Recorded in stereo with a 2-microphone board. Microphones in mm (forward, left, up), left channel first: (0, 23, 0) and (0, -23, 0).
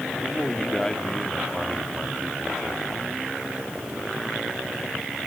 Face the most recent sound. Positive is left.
turn(degrees=-30)  # may be behind; listen again after turning